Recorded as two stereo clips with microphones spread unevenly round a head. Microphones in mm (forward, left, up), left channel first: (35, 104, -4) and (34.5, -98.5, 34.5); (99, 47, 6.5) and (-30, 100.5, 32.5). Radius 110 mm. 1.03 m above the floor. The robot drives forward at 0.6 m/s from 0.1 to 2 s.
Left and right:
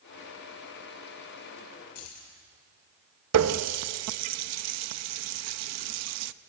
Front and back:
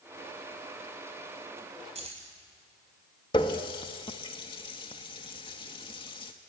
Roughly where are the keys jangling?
Behind left.